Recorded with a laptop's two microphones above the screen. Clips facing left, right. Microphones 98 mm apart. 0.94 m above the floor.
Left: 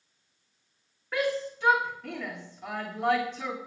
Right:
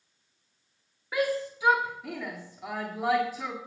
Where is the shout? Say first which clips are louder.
Right 1 dB; 10° right (ahead or behind), 2.0 m.